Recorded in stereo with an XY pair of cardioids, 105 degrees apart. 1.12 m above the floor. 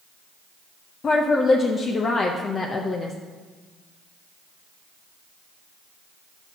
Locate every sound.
1.0 s a woman speaking: 40° left, 0.7 m